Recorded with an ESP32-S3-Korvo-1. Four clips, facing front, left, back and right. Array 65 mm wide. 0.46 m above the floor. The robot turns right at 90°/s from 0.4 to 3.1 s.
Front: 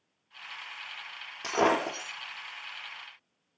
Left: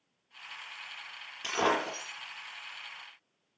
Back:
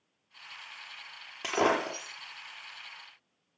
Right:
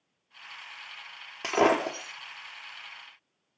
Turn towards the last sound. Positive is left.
turn(degrees=45)